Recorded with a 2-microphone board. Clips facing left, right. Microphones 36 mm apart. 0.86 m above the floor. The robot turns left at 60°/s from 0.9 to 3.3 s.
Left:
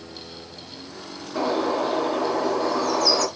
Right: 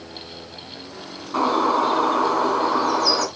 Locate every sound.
1.3 s a bird: 55° right, 4.5 m; by 3.3 s 170° right, 4.5 m